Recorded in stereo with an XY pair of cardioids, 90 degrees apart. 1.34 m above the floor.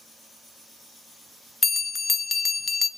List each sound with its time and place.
1.6 s a bell: 30° left, 0.5 m